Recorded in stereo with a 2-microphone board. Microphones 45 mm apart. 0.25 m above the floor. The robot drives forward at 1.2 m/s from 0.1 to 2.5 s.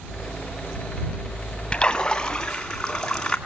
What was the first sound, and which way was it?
A splash, 20° left (ahead or behind).